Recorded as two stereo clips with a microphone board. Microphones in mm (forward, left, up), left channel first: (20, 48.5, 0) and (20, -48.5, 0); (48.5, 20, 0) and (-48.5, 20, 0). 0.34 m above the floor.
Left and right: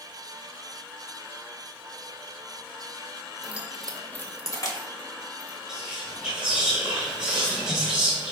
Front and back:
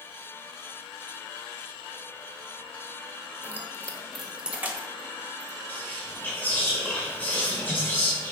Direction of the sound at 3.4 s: 35° right.